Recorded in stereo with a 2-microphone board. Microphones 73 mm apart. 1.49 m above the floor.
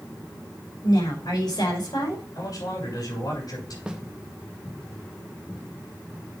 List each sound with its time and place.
0.8 s a woman speaking: 85° left, 5.5 m
2.4 s a man speaking: 65° left (ahead or behind), 7 m
3.9 s a snare drum: 10° right (ahead or behind), 1.2 m